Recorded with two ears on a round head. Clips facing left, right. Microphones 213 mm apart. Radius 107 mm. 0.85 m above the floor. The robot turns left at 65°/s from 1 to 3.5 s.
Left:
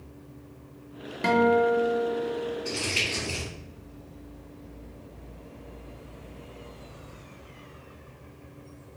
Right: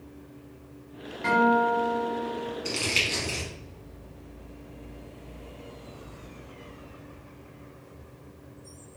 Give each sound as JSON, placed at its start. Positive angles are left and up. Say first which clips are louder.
{"t": 1.2, "sound": "a guitar", "louder": "left 3 dB", "azimuth_deg": 55, "distance_m": 0.6}
{"t": 2.6, "sound": "crumpling", "louder": "even", "side_deg": -65, "distance_m": 1.7}